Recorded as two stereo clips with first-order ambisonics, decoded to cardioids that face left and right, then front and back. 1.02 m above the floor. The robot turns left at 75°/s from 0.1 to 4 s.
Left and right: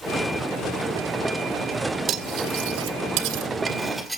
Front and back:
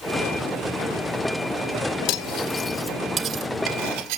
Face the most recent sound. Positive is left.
turn(degrees=-175)